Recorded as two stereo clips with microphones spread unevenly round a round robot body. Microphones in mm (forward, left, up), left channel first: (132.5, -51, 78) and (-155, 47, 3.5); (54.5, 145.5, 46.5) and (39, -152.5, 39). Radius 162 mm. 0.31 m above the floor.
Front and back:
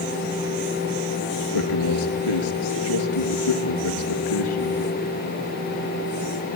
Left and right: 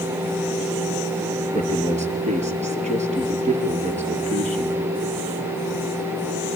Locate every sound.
1.5 s a man speaking: 25° right, 6 m